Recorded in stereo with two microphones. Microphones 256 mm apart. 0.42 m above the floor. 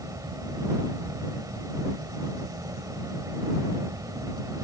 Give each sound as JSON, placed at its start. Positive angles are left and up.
{"t": 0.0, "sound": "an insect", "side_deg": -15}